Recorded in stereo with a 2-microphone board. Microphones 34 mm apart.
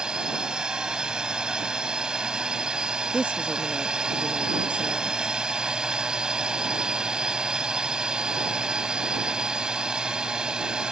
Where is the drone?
30° right (ahead or behind).